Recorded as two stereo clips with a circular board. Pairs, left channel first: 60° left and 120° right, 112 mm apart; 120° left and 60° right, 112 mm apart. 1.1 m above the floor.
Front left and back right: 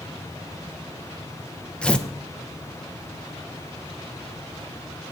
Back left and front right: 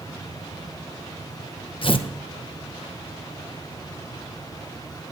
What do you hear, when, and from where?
1.8 s tearing paper: 140° left, 0.8 m